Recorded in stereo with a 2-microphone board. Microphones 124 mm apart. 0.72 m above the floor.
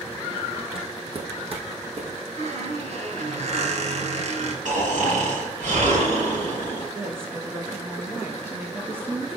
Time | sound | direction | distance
0.8 | footsteps | 45° right (ahead or behind) | 1.2 m
2.4 | a squeak | 65° right (ahead or behind) | 1.4 m
4.7 | snoring | 85° right | 3 m
7.0 | a woman speaking | 15° right (ahead or behind) | 0.9 m